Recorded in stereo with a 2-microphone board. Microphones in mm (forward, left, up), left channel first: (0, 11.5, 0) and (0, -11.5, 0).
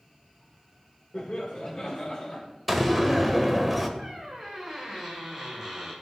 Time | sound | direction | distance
1.1 | laughter | 55° left (ahead or behind) | 1.8 m
2.7 | a door slam | centre (ahead or behind) | 1.4 m
4.0 | a squeak | 20° right (ahead or behind) | 3.5 m